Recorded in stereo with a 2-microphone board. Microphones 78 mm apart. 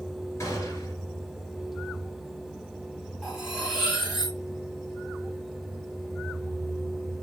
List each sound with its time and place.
0.4 s a gunshot: 40° left (ahead or behind), 2.0 m
3.2 s cutlery clinking: centre (ahead or behind), 1.8 m